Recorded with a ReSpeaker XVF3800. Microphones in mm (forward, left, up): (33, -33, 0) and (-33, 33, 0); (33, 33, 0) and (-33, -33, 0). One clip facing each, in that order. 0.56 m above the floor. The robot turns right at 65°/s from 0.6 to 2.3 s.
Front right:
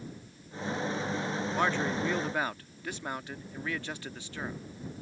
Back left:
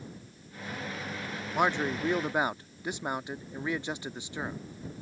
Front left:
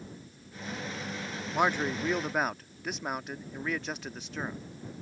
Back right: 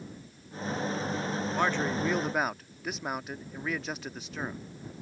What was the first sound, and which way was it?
A man speaking, 90° left.